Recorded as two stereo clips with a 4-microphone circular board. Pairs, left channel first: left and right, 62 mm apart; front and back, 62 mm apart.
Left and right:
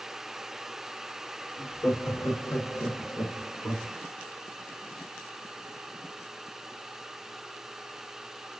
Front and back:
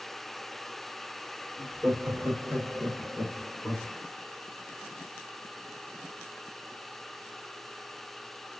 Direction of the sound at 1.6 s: 130° left.